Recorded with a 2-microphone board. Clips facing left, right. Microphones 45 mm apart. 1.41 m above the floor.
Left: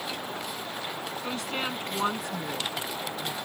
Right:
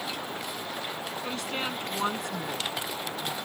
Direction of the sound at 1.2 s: 10° left (ahead or behind).